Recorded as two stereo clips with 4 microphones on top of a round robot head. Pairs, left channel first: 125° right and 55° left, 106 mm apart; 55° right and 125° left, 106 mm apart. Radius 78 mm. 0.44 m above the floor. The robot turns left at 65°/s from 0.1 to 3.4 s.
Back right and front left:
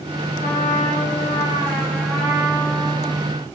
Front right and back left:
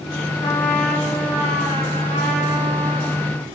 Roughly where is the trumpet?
Right.